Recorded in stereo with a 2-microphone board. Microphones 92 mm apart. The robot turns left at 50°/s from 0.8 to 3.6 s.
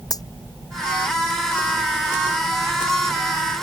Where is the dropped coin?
45° left (ahead or behind).